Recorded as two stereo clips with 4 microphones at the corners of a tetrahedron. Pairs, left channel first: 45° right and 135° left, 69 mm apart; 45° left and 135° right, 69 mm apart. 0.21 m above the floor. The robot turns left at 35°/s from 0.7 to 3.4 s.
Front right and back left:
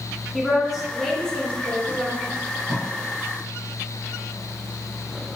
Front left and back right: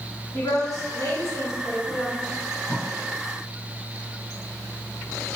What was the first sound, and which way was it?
A woman speaking, 50° left.